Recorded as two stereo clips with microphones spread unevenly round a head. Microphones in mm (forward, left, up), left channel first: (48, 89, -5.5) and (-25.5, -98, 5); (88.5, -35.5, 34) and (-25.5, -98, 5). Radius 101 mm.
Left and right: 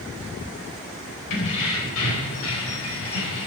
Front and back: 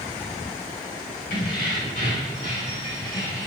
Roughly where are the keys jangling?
Left.